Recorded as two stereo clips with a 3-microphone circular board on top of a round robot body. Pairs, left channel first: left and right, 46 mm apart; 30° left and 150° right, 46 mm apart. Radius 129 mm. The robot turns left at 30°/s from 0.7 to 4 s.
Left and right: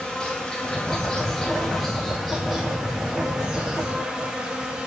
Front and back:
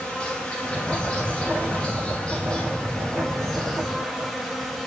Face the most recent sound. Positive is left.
turn(degrees=-45)